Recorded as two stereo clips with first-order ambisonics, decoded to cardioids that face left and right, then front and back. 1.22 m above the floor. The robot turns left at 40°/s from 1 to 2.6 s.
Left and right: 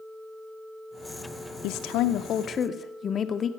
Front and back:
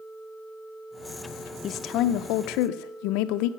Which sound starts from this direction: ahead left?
A woman speaking, at 1.6 s.